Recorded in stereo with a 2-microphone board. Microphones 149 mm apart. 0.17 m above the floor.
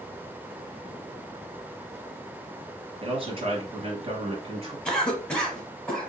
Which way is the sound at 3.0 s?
40° right (ahead or behind).